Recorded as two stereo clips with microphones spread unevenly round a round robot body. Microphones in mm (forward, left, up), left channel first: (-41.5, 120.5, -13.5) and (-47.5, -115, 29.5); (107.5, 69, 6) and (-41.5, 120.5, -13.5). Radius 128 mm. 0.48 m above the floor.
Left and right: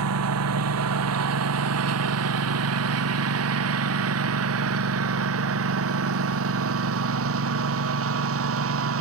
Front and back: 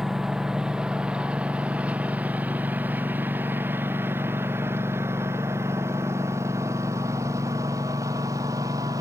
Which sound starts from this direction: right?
A lawn mower, at 0.0 s.